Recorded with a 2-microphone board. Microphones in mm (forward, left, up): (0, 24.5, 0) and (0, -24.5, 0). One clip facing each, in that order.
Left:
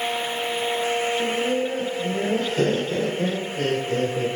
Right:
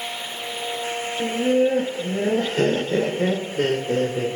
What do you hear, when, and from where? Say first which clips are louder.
1.2 s laughter: right 4 dB; 45° right (ahead or behind), 1.4 m